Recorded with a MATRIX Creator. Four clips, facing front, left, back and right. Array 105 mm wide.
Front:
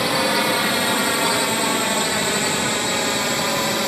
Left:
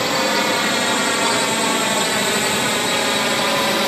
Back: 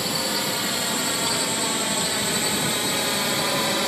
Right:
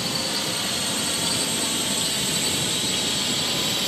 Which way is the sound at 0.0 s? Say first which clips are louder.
Left 11 dB, front 8 dB; 55° left.